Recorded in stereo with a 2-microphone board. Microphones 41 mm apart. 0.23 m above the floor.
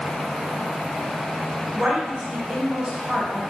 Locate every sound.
1.8 s a woman speaking: 30° right (ahead or behind), 1.1 m